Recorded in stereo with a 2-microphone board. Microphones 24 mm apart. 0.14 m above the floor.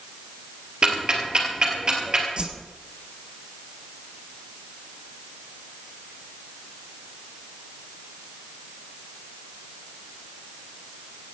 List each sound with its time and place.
0.8 s ticking: 35° right (ahead or behind), 3.5 m
2.4 s a whoosh: 40° right (ahead or behind), 1.3 m